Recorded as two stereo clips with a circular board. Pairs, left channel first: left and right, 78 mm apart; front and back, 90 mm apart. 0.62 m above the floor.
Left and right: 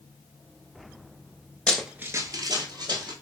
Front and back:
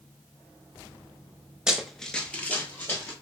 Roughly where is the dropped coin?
No dropped coin in this recording.